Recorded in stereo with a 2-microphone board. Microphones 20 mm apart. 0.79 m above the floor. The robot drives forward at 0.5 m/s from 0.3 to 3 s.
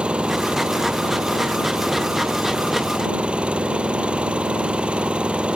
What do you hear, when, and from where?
0.0 s an engine running: 65° right (ahead or behind); by 5.6 s 70° right (ahead or behind)